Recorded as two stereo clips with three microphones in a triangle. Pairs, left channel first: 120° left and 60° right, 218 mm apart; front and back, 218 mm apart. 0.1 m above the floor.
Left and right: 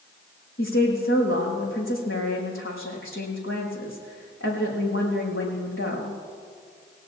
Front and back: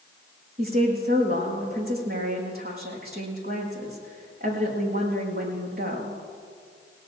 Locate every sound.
0.6 s a woman speaking: 140° left, 5.5 m